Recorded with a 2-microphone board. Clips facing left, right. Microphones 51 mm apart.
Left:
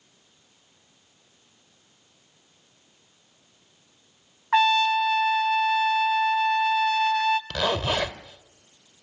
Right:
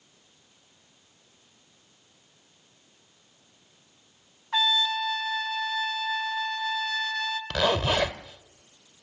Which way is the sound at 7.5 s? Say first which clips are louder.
Right 1 dB; 15° right (ahead or behind).